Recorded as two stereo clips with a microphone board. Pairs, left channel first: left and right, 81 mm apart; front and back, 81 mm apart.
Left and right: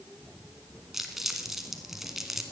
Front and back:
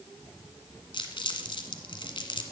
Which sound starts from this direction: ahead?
Crumpling, at 0.9 s.